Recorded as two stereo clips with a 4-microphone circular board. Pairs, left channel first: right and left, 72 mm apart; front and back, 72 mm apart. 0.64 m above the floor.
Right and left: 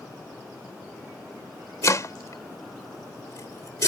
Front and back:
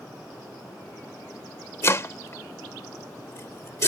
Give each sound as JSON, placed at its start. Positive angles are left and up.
{"t": 1.8, "sound": "chopping", "azimuth_deg": -50}